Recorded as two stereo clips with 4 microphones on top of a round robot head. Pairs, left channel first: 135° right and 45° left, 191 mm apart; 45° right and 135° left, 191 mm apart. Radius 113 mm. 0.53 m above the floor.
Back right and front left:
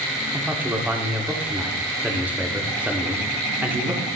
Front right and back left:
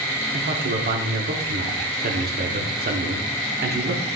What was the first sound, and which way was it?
A man speaking, 125° left.